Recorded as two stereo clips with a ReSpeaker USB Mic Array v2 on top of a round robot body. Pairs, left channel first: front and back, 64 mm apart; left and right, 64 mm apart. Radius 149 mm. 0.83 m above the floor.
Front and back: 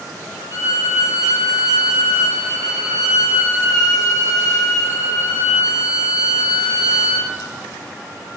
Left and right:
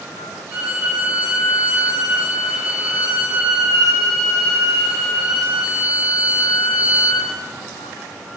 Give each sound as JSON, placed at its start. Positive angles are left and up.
{"t": 0.5, "sound": "a violin", "azimuth_deg": -20, "distance_m": 1.9}